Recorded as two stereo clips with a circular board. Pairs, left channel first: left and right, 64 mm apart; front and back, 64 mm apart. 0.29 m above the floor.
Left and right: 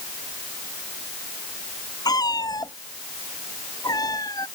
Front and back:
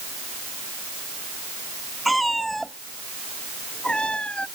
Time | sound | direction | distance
2.0 | a cat meowing | 90° left | ?